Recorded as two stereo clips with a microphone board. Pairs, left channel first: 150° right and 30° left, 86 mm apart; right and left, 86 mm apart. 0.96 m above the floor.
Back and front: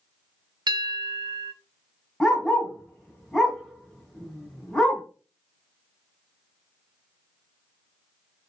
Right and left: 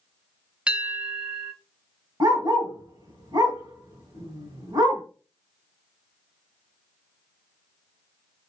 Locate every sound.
0.7 s a bell: 15° left, 0.7 m
2.2 s a dog barking: 125° left, 2.5 m